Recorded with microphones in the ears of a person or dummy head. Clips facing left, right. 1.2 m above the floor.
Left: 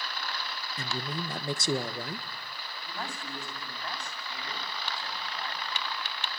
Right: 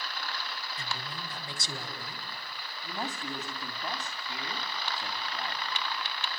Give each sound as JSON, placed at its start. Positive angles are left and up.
{"t": 0.8, "sound": "a man speaking", "side_deg": 45, "distance_m": 1.5}
{"t": 2.8, "sound": "a man speaking", "side_deg": -15, "distance_m": 2.5}